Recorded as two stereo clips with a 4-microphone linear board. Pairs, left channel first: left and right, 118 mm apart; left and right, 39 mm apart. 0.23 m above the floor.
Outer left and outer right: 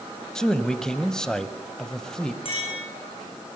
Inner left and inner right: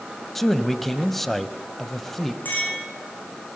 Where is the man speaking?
5° left (ahead or behind), 1.0 m.